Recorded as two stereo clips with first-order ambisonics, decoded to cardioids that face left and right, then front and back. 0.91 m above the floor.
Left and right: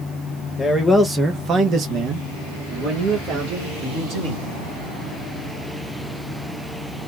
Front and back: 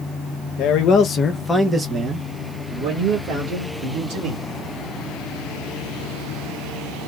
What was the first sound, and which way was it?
A man speaking, 10° left.